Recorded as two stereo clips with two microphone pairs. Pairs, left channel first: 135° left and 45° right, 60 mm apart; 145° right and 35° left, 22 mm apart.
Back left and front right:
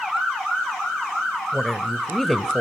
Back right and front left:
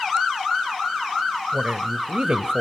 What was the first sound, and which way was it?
A woman speaking, 50° left.